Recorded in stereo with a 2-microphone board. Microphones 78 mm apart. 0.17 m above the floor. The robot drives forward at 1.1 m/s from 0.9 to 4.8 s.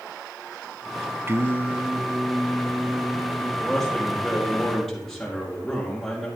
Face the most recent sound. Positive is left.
turn(degrees=5)  # may be behind; listen again after turning